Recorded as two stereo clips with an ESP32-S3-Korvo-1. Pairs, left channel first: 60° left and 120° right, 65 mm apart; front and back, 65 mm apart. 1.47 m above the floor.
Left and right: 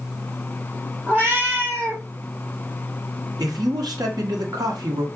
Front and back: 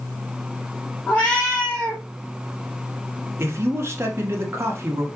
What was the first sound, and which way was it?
A cat meowing, 65° right.